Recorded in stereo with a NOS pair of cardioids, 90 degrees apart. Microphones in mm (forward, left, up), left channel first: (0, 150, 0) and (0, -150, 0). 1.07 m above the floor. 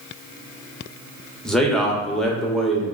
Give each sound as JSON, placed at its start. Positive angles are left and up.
{"t": 1.4, "sound": "a man speaking", "azimuth_deg": 0, "distance_m": 0.7}